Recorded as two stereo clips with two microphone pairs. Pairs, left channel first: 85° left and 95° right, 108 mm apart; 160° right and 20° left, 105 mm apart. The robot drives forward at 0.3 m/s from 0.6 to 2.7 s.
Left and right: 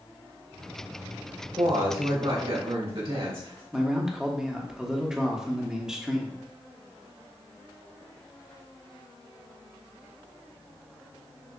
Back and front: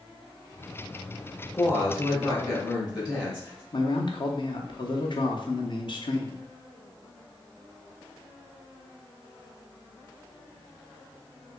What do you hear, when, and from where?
1.6 s a woman speaking: 100° right, 2 m; by 3.6 s 110° right, 2 m
3.7 s a man speaking: straight behind, 0.8 m